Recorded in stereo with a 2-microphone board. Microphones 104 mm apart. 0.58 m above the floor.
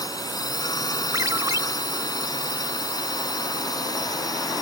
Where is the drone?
40° left (ahead or behind).